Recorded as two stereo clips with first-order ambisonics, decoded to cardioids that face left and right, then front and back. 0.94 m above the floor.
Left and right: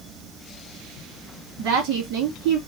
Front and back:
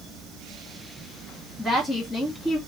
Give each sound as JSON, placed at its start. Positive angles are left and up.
{"t": 1.6, "sound": "a woman speaking", "azimuth_deg": -85, "distance_m": 1.7}